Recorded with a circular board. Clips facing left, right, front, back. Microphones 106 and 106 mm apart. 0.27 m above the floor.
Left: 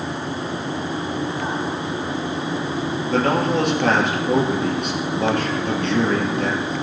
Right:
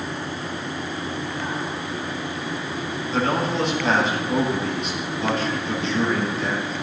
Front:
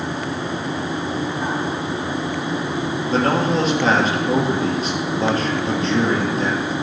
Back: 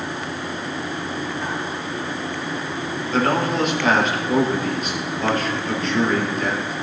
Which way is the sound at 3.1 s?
60° left.